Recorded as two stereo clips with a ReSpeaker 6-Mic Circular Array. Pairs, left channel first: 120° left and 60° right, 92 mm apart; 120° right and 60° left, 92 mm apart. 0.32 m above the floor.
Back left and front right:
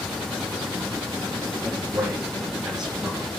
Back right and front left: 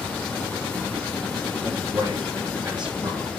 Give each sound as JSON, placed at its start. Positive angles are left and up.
{"t": 1.6, "sound": "a man speaking", "azimuth_deg": 15, "distance_m": 4.0}